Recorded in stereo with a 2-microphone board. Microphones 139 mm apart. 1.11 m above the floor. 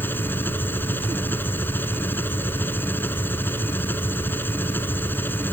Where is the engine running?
15° left (ahead or behind).